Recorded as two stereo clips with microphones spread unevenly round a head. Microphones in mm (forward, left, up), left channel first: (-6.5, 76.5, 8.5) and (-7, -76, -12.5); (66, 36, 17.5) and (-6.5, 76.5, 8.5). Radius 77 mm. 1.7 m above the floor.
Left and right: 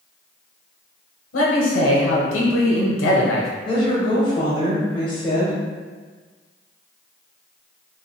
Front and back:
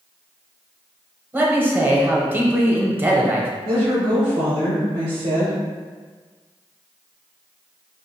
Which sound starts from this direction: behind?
A woman speaking, at 3.6 s.